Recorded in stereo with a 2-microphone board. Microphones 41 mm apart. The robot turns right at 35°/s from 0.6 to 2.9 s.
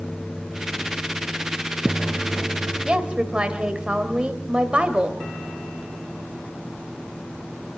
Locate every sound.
2.9 s a woman speaking: 25° right (ahead or behind), 1.9 m